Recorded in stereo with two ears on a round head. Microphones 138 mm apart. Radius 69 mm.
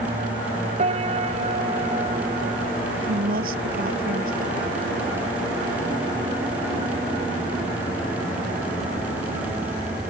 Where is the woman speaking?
65° right (ahead or behind).